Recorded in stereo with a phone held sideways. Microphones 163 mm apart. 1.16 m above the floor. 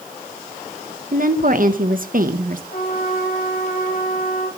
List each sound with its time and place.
1.1 s a woman speaking: 55° right (ahead or behind), 1.1 m
2.7 s a trumpet: 60° left (ahead or behind), 5.5 m